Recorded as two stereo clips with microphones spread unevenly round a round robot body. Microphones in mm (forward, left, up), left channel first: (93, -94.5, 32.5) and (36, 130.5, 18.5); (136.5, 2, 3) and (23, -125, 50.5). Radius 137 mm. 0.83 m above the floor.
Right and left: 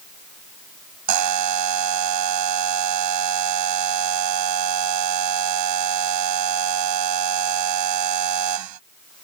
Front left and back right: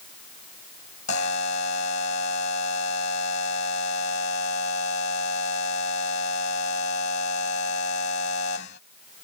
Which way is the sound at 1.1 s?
110° left.